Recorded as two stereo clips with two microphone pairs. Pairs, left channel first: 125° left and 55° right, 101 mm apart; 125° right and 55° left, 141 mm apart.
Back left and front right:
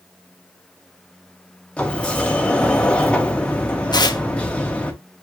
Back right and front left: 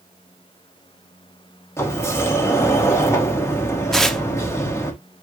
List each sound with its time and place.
1.8 s a sliding door: 165° right, 0.9 m
3.9 s tearing paper: 150° left, 0.6 m